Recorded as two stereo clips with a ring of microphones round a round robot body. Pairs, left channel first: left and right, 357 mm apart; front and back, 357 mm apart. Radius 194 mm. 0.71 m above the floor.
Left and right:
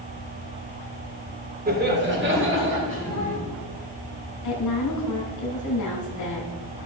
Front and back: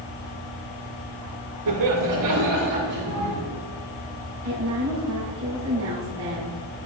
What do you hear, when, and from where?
1.7 s laughter: 155° right, 2.5 m; by 3.4 s 140° right, 4.5 m
4.4 s a woman speaking: 125° left, 2.5 m